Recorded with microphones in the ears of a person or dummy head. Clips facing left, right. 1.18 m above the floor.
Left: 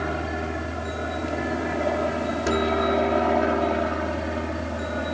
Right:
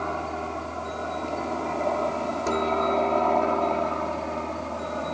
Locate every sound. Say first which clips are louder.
0.0 s a helicopter: left 2 dB; 15° left (ahead or behind)